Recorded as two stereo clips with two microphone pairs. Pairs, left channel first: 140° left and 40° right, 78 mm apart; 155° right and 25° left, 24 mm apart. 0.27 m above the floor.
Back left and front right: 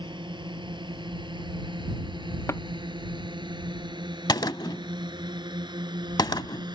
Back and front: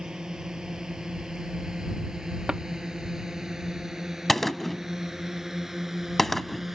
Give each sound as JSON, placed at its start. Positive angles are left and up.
{"t": 0.0, "sound": "a drone", "azimuth_deg": -40}
{"t": 2.5, "sound": "tapping", "azimuth_deg": 85}
{"t": 4.3, "sound": "a gunshot", "azimuth_deg": 125}